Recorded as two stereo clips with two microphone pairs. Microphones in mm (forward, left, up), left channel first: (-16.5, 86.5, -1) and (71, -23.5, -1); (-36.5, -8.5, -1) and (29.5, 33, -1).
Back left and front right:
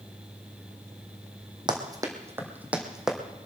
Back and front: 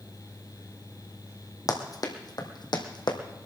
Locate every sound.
1.7 s running footsteps: 110° right, 2.5 m; by 3.2 s 140° right, 2.5 m